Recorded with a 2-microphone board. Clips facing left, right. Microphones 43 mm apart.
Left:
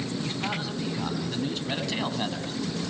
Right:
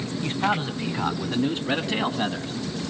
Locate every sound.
0.2 s a man speaking: 35° right (ahead or behind), 3 m; by 2.5 s 10° right (ahead or behind), 2.5 m